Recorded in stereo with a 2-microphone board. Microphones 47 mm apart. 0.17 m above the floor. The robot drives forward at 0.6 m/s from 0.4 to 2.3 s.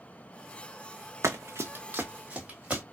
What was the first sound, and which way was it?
Running footsteps, 75° right (ahead or behind).